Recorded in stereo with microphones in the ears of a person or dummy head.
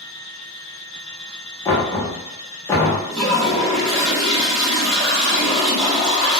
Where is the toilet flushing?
5° left (ahead or behind), 0.9 m.